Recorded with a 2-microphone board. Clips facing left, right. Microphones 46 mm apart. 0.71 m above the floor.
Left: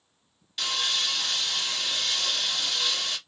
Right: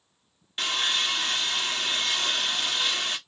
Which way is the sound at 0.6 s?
30° right (ahead or behind).